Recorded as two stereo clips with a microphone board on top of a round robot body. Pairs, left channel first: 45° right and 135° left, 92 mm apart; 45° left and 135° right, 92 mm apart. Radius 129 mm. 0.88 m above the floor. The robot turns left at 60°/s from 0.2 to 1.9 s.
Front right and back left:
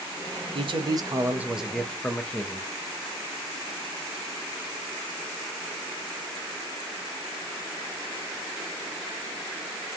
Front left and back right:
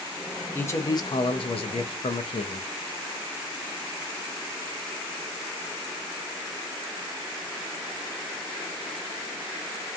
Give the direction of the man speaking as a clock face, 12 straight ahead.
8 o'clock.